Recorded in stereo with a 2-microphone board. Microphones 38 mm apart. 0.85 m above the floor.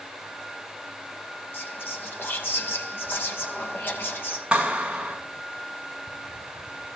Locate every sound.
1.5 s whispering: 70° left (ahead or behind), 5 m
4.5 s a clap: 25° right (ahead or behind), 7 m